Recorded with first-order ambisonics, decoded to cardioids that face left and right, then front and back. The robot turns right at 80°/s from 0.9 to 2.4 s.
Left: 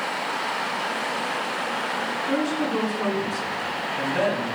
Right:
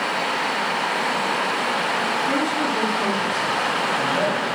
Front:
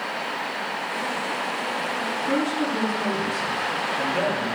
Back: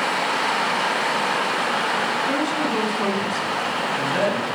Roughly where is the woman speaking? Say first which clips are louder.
Right 3 dB, back 2 dB; behind.